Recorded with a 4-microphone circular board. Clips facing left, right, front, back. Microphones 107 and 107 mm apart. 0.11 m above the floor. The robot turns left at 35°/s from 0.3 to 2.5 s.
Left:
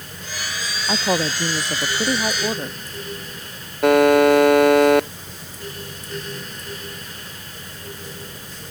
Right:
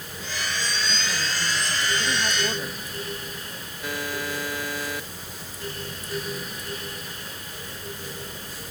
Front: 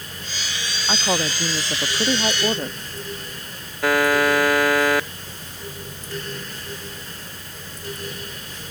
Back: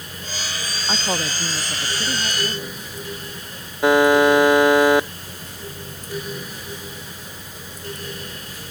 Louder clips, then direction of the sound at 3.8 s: Left 19 dB, back 5 dB; 110° left.